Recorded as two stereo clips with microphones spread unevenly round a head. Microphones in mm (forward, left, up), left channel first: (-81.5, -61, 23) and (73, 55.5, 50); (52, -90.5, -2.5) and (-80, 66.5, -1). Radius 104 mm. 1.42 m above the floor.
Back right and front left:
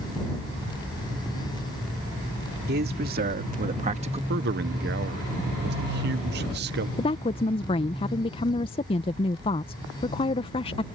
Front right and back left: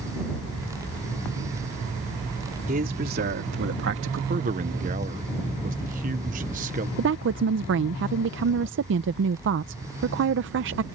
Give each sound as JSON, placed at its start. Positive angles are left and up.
{"t": 2.7, "sound": "a man speaking", "azimuth_deg": 75}
{"t": 4.3, "sound": "a man speaking", "azimuth_deg": 75}
{"t": 7.0, "sound": "a woman speaking", "azimuth_deg": 150}